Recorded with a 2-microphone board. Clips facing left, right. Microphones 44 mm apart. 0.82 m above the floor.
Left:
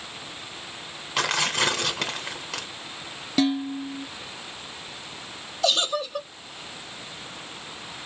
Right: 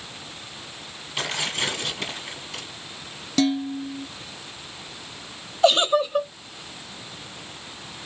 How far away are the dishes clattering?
About 0.7 m.